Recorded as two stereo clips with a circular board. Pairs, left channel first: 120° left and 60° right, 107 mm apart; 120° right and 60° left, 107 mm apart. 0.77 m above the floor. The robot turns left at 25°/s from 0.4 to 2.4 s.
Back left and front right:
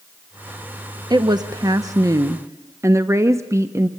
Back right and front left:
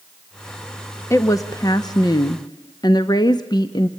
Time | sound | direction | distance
1.1 | a woman speaking | 75° right | 0.8 m